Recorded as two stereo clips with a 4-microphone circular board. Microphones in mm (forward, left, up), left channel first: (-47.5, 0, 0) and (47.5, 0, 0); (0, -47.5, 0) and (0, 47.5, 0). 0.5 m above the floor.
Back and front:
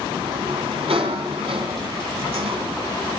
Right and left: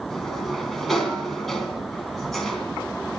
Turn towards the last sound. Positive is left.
turn(degrees=0)